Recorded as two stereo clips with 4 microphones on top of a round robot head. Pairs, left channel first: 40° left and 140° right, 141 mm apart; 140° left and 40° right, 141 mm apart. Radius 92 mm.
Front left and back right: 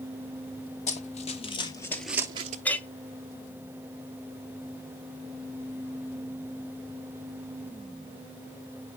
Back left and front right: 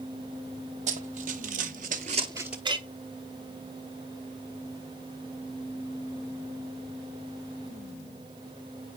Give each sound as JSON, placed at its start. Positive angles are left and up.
{"t": 0.9, "sound": "running footsteps", "azimuth_deg": 0, "distance_m": 1.2}
{"t": 2.6, "sound": "a clink", "azimuth_deg": -30, "distance_m": 0.8}